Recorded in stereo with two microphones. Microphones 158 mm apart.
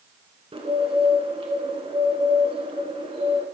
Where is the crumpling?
I don't hear crumpling.